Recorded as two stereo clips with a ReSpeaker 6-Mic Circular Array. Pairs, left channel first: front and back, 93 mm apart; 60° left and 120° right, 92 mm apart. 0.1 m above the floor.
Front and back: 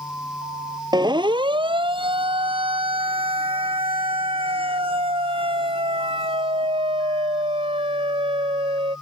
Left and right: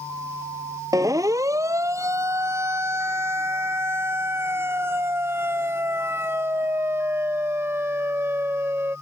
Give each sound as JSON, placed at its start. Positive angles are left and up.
{"t": 0.9, "sound": "a siren", "azimuth_deg": -160}